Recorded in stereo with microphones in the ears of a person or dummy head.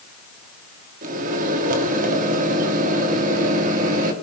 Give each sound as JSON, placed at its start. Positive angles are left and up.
{"t": 1.0, "sound": "a microwave", "side_deg": -50, "distance_m": 2.0}